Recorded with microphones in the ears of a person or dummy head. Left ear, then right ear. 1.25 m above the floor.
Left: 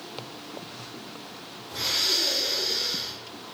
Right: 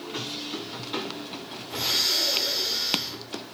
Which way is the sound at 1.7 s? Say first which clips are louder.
Right 1 dB; 10° right (ahead or behind).